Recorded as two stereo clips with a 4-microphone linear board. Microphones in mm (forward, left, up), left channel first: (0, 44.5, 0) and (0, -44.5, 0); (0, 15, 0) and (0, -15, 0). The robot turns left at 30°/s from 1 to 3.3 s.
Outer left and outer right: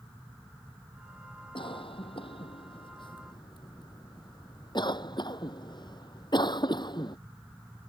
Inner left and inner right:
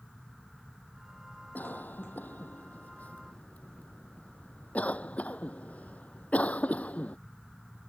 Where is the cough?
70° left (ahead or behind); by 7.2 s 55° left (ahead or behind).